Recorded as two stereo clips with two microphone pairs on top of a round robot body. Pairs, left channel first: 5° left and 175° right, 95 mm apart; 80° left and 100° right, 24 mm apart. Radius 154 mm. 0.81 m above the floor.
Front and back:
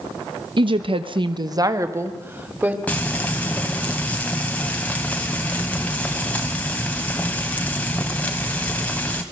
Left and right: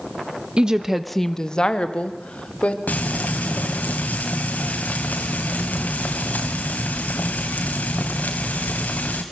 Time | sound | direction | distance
0.6 | a woman speaking | 150° right | 1.2 m
2.9 | frying | 85° left | 1.0 m